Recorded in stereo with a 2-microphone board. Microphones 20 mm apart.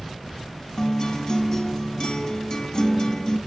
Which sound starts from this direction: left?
A guitar, at 0.8 s.